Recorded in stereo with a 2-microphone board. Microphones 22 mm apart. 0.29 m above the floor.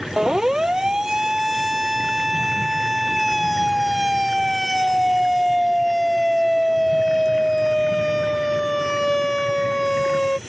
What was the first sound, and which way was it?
A siren, 30° right (ahead or behind).